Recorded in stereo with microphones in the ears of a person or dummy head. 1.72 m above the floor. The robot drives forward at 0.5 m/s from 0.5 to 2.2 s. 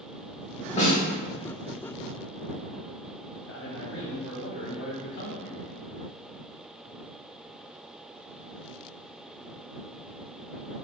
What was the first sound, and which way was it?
A snare drum, 35° left (ahead or behind).